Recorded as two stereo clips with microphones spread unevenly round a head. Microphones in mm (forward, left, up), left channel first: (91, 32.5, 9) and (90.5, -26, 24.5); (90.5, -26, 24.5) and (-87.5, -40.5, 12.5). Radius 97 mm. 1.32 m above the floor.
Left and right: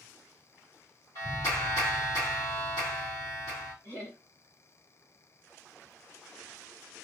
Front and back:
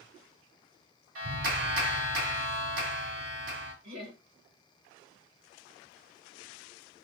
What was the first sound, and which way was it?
A clap, 155° left.